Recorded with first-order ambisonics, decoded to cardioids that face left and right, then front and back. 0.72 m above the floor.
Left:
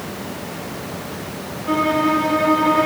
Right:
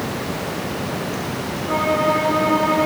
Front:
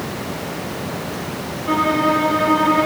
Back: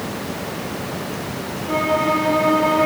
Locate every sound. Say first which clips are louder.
1.7 s a violin: left 1 dB, front 2 dB; 30° left, 5.5 m